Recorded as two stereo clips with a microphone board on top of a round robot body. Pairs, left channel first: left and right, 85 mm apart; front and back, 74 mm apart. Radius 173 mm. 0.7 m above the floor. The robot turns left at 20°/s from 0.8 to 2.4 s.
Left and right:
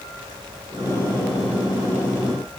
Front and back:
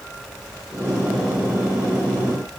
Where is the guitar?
No guitar in this recording.